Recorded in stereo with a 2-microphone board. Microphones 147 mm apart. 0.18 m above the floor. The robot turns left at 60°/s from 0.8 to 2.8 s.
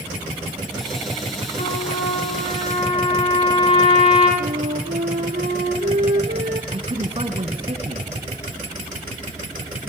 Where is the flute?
70° right (ahead or behind), 2 m.